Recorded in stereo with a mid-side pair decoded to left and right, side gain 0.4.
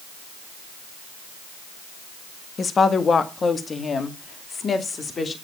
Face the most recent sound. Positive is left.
turn(degrees=40)